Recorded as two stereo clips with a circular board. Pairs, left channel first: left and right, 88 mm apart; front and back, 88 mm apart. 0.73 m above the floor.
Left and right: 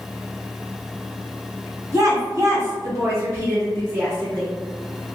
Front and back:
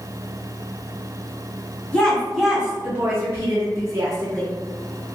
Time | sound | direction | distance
1.9 | a woman speaking | 70° right | 1.3 m